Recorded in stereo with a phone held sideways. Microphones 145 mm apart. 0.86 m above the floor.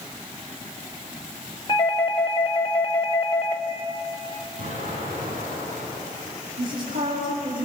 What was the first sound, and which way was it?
A doorbell, 30° left (ahead or behind).